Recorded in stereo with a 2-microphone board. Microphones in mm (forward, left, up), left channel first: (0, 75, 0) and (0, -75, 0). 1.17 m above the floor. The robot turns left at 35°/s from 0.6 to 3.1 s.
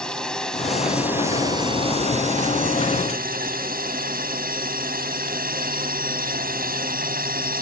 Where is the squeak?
I don't hear a squeak.